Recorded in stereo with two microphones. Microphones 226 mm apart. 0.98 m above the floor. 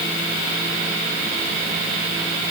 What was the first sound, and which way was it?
Only background noise.